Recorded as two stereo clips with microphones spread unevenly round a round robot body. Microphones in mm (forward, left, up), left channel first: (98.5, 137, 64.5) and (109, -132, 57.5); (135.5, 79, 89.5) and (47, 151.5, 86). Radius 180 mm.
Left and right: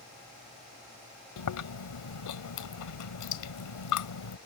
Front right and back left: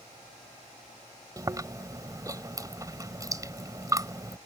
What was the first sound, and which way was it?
Chewing, 80° left.